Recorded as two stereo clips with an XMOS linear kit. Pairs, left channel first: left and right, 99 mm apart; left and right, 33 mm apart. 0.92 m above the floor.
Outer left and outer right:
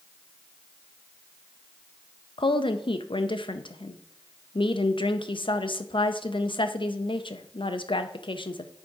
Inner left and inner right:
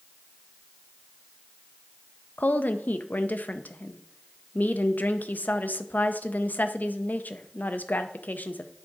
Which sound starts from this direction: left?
A woman speaking, at 2.4 s.